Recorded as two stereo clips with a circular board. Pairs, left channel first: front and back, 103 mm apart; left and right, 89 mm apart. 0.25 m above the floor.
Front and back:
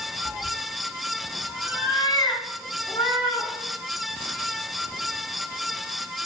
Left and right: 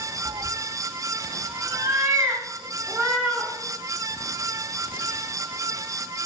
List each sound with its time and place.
0.2 s a cat meowing: 105° right, 0.8 m; by 3.5 s 15° right, 1.9 m